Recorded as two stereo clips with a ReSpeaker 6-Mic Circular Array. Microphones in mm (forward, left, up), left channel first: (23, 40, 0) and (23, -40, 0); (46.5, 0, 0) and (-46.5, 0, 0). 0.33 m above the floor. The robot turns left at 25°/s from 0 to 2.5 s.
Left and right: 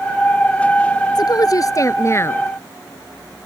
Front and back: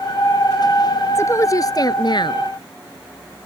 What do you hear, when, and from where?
1.1 s a woman speaking: 60° left; by 2.5 s 30° left